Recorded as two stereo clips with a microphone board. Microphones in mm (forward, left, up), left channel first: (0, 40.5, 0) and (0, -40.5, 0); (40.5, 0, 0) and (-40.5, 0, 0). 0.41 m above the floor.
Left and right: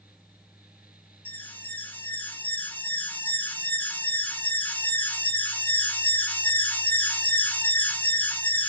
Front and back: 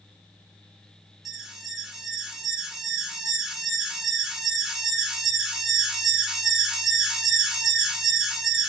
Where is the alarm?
105° left, 0.5 m.